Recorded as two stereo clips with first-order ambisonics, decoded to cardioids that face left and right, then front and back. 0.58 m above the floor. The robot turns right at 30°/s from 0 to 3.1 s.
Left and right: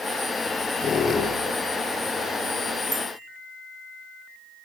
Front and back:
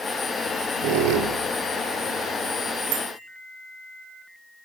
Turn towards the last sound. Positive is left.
turn(degrees=-160)